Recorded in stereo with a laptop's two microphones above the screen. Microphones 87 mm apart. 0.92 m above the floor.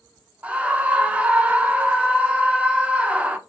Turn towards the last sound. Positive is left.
turn(degrees=-15)  # may be behind; listen again after turning